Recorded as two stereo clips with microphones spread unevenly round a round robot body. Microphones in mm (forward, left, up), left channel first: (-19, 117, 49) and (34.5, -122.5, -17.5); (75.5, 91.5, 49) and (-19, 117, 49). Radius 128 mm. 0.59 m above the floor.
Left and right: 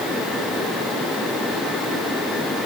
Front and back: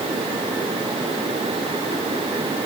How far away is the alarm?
I don't hear an alarm.